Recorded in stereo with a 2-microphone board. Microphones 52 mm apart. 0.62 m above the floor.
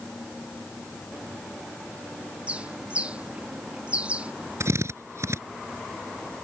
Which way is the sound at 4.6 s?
65° right (ahead or behind).